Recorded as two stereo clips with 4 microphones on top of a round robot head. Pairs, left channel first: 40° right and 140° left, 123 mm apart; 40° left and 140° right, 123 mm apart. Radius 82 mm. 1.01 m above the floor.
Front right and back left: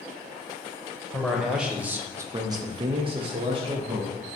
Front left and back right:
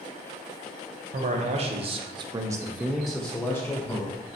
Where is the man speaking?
130° right, 1.0 m; by 4.1 s 100° left, 1.0 m.